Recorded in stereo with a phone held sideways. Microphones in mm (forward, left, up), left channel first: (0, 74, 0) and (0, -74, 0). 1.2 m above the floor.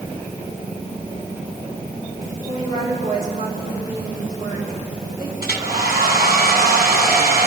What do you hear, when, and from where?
2.5 s a woman speaking: 70° right (ahead or behind), 6 m
5.4 s a hair dryer: 75° right (ahead or behind), 2 m